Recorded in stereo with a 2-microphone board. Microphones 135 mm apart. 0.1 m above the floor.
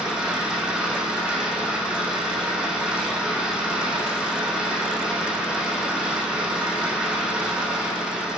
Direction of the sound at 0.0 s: 5° right (ahead or behind).